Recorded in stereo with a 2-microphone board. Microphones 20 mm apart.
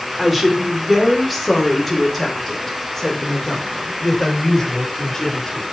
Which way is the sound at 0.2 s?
15° right (ahead or behind).